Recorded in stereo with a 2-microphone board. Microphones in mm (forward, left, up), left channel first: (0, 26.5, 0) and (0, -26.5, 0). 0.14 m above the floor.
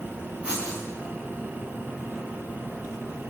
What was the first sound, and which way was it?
Writing, 25° right (ahead or behind).